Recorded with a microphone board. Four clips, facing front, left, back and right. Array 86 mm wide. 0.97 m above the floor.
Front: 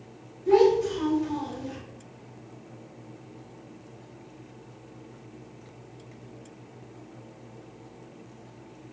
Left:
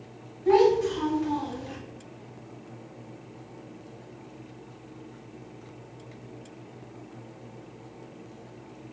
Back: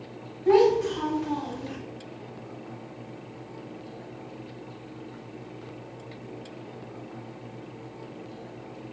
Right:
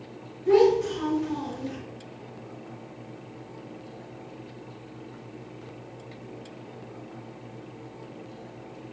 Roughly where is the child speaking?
Behind left.